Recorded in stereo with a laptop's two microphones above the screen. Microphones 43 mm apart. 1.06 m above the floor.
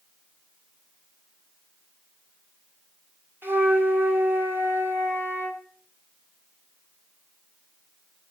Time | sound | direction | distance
3.4 | a flute | 60° right (ahead or behind) | 2.5 m